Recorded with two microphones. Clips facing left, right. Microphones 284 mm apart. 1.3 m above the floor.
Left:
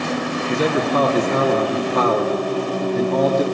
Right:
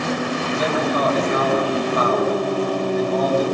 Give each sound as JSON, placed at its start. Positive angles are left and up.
{"t": 0.5, "sound": "a man speaking", "side_deg": 70, "distance_m": 2.5}